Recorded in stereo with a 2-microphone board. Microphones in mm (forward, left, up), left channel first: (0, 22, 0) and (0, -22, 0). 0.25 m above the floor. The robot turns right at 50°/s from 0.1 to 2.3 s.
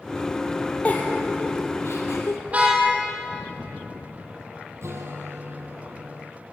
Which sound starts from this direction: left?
A giggle, at 0.8 s.